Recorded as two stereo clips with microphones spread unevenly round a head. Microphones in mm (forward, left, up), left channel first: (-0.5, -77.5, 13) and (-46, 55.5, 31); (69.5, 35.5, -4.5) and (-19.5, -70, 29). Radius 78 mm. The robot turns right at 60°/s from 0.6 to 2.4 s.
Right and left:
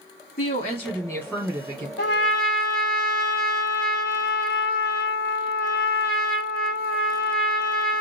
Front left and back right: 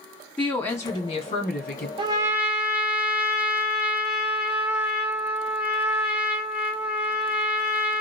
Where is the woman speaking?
30° right, 1.5 m; by 1.9 s 50° left, 1.5 m.